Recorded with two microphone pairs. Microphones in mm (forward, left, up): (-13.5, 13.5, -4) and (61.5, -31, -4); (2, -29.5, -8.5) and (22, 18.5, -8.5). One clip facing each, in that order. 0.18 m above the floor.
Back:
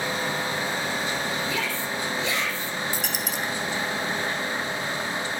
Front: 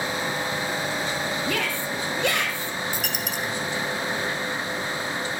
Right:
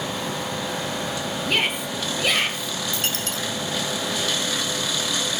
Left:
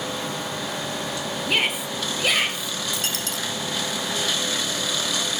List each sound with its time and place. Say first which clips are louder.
1.5 s a shout: front 1 dB, even; 20° right, 2.5 m
2.9 s a dropped coin: even, right 1 dB; 60° right, 1.6 m